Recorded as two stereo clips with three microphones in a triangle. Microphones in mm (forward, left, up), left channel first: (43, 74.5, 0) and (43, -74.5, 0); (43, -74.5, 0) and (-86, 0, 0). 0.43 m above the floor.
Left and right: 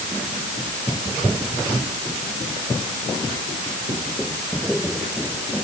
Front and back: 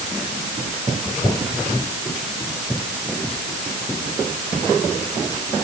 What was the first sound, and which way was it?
Only background noise.